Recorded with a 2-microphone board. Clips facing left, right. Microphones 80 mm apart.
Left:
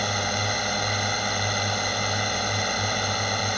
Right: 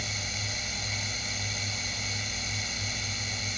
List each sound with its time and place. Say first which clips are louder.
0.0 s a drone: left 12 dB; 65° left (ahead or behind)